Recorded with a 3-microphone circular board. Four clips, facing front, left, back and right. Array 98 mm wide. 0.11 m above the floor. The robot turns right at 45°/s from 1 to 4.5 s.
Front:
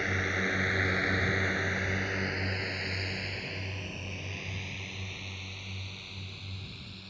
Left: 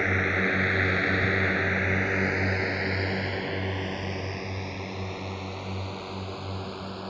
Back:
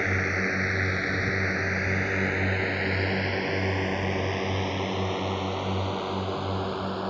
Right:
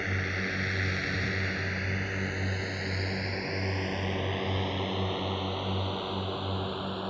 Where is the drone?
120° left; by 7.1 s 170° right.